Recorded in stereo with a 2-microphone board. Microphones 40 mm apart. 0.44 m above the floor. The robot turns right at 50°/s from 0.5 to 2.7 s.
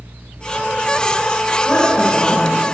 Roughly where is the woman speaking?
Ahead.